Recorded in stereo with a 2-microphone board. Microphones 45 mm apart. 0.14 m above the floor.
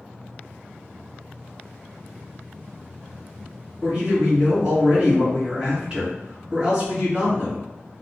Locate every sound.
3.8 s a man speaking: 20° right (ahead or behind), 1.5 m